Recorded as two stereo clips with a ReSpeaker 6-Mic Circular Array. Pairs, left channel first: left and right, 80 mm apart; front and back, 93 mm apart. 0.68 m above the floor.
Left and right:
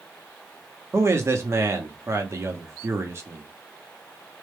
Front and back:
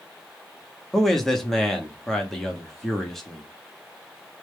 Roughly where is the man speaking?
Right.